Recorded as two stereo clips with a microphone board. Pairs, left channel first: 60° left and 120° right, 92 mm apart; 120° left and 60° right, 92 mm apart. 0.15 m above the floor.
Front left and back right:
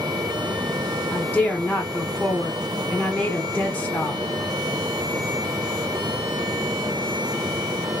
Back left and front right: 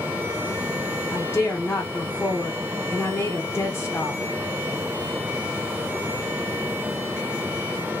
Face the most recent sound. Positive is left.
turn(degrees=115)